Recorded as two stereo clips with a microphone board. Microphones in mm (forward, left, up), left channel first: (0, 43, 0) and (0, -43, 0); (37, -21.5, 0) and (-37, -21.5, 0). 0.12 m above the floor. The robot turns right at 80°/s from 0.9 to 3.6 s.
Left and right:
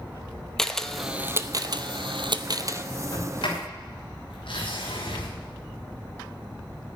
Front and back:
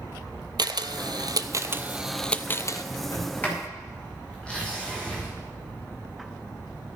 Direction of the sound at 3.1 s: 40° left.